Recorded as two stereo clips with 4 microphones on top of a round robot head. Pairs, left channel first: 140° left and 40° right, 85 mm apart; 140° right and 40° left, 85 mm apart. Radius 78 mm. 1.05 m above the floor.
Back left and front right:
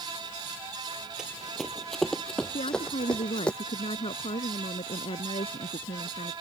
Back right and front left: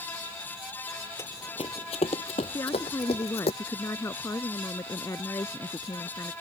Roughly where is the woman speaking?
Behind.